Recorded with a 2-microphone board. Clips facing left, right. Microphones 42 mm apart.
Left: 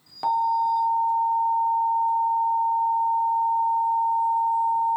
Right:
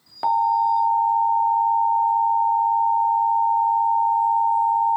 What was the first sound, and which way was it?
An alarm, 15° right (ahead or behind).